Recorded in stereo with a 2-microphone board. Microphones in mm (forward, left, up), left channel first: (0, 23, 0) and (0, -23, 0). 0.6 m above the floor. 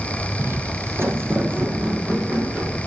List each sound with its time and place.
0.4 s footsteps: 55° right (ahead or behind), 1.1 m; by 2.8 s 40° right (ahead or behind), 3.5 m